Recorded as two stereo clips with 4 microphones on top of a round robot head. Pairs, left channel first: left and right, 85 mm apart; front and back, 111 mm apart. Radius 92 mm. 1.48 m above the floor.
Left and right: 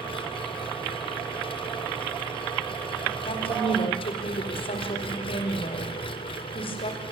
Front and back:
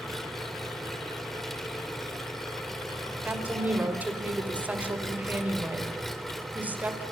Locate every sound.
0.0 s an engine running: 90° left, 2 m
3.2 s a woman speaking: 105° left, 5 m